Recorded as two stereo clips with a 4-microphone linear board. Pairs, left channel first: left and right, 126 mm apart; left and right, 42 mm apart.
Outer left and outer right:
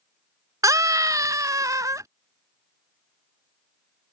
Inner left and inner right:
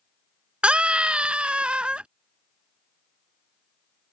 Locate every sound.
0.6 s a scream: 25° right (ahead or behind)